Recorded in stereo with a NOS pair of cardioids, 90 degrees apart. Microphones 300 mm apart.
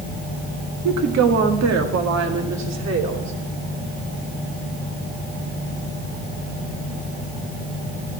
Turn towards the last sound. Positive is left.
turn(degrees=-60)